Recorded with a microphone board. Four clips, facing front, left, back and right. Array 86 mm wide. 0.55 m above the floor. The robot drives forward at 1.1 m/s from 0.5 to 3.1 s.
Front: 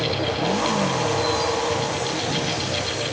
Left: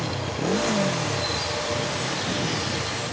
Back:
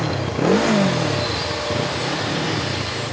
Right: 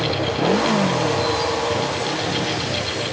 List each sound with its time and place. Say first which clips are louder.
0.0 s a motorcycle: right 7 dB, back 2 dB; 160° right; by 3.1 s 165° right